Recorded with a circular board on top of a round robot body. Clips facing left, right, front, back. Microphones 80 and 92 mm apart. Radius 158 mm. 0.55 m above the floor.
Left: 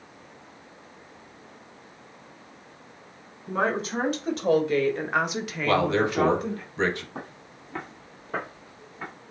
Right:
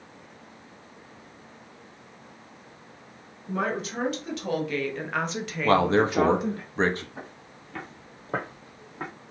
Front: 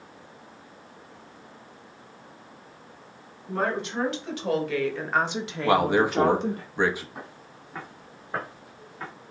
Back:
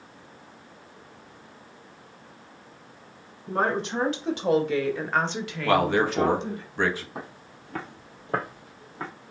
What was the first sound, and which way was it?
A woman speaking, 140° left.